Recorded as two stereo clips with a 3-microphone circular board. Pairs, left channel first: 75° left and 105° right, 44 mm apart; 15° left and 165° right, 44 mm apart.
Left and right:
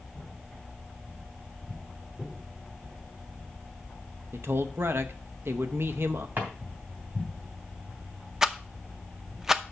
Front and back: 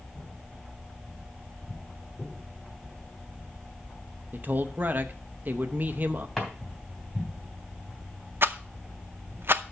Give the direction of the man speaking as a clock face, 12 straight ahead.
4 o'clock.